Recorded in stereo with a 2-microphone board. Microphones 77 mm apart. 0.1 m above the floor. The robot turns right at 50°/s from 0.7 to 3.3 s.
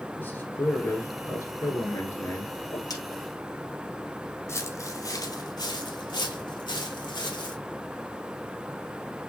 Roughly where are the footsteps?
Left.